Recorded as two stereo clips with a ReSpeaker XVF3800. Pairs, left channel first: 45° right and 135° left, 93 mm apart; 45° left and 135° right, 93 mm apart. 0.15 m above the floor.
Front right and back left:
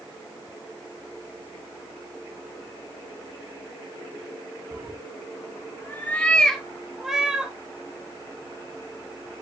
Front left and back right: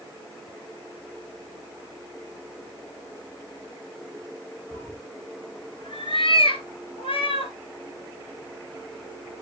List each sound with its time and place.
4.7 s a cat meowing: 25° right, 1.2 m; by 7.5 s 55° left, 1.8 m